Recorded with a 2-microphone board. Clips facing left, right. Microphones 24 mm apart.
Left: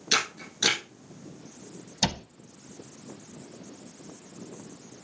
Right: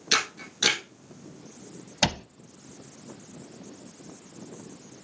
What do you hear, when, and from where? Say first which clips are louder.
0.1 s a camera shutter: right 1 dB; 15° right (ahead or behind), 4 m
2.0 s a cupboard door: right 2 dB; 50° right (ahead or behind), 0.7 m